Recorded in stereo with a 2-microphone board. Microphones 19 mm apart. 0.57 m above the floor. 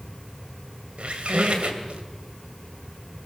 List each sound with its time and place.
1.0 s a squeak: 75° right (ahead or behind), 2 m